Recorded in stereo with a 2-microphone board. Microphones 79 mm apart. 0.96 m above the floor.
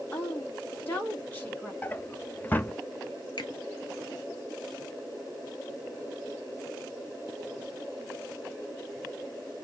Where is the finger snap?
65° left (ahead or behind), 2 m.